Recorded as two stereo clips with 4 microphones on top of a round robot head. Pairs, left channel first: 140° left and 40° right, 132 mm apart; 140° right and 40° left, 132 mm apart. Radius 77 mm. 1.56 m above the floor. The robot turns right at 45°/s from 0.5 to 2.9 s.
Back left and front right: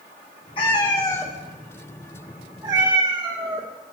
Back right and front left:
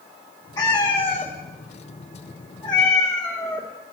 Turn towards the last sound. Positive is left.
turn(degrees=-85)